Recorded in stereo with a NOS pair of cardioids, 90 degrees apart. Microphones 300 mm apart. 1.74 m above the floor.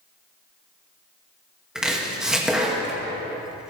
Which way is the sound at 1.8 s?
Straight ahead.